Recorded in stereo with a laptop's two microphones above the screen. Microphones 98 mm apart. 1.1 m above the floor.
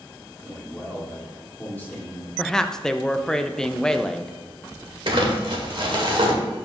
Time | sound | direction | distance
0.4 | a man speaking | 20° left (ahead or behind) | 1.6 m
2.4 | a woman speaking | 5° left (ahead or behind) | 0.5 m
5.1 | crumpling | 55° right (ahead or behind) | 1.4 m